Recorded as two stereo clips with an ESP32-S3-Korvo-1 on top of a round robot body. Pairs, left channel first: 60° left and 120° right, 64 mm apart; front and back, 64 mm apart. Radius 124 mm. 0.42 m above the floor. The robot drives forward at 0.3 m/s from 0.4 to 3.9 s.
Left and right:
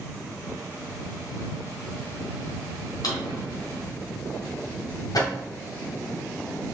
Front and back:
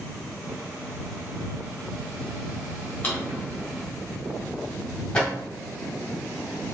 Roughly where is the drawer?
Ahead left.